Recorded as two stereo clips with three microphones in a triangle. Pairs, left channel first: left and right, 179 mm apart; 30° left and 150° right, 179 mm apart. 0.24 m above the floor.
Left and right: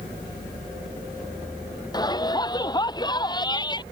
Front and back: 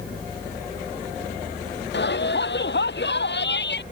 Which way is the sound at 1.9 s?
25° left.